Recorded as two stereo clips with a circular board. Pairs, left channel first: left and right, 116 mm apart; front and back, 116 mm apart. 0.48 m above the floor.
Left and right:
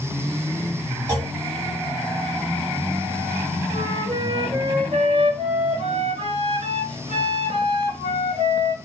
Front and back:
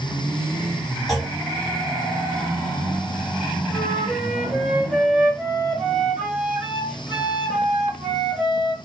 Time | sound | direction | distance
1.1 | a clunk | 85° right | 1.5 m
3.7 | a flute | 100° right | 2.0 m